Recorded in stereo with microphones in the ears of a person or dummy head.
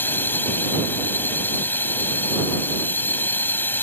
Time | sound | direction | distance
0.0 | a drone | 15° left (ahead or behind) | ?